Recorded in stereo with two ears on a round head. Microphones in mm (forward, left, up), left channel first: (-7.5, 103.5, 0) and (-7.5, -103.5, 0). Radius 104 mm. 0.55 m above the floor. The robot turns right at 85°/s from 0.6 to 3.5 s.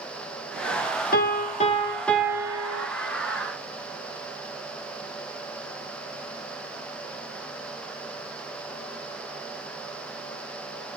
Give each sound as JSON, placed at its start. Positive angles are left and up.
{"t": 1.1, "sound": "a piano", "azimuth_deg": 90, "distance_m": 0.8}